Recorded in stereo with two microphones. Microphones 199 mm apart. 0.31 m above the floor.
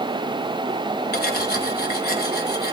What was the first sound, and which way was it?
Cutlery clinking, 50° left (ahead or behind).